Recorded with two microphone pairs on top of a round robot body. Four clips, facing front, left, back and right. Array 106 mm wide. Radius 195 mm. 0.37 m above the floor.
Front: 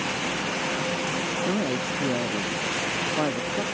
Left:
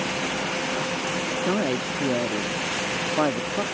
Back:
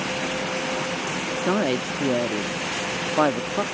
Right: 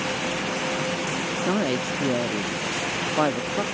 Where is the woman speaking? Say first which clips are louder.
Right 1 dB, back 6 dB; 170° right.